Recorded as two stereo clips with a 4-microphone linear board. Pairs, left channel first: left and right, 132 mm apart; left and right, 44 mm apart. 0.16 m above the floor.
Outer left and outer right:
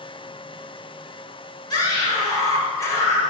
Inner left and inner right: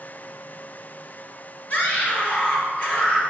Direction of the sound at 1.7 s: 30° left (ahead or behind).